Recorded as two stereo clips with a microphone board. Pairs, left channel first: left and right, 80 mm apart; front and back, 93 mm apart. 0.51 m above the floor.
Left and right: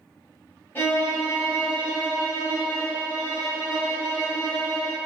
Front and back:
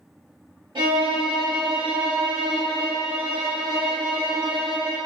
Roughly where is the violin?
Behind left.